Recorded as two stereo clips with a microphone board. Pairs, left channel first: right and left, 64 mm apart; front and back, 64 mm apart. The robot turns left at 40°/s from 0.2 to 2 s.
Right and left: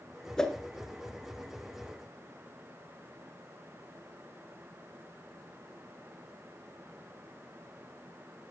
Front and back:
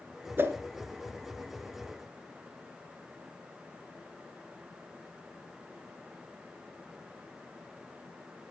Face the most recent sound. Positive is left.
turn(degrees=130)